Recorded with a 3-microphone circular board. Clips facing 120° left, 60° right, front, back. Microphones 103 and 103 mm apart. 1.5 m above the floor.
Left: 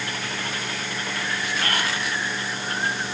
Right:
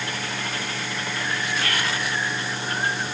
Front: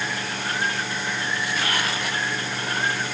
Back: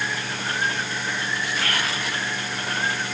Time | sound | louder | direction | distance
1.6 | whispering | even, front 1 dB | 70° left | 1.1 m